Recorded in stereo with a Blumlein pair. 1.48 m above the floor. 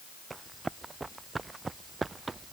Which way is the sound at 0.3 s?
10° right.